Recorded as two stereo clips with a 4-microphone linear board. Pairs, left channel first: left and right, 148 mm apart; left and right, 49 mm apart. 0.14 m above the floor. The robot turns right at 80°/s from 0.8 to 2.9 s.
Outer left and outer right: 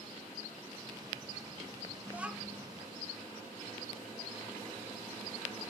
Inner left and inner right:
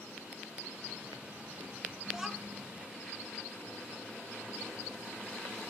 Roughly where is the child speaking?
Ahead right.